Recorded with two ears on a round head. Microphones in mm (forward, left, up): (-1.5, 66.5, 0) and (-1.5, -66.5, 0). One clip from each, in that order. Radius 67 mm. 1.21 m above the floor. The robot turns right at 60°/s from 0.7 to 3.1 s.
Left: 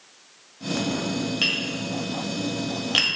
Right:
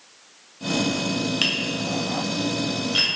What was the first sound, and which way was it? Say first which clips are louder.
Tapping: even; 20° right (ahead or behind).